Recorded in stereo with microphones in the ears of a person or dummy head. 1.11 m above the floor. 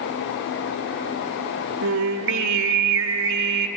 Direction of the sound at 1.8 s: 75° right (ahead or behind).